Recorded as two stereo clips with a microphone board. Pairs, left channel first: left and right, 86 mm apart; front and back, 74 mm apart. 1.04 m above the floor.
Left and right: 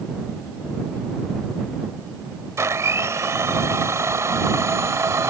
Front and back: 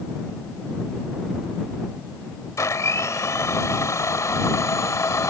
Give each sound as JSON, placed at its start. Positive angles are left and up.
{"t": 2.6, "sound": "a blender", "azimuth_deg": -40}